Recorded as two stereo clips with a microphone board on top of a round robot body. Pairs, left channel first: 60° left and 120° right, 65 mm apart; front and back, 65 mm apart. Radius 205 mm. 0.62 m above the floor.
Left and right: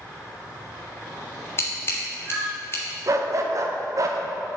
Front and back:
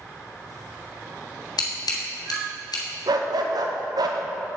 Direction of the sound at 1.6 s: 5° left.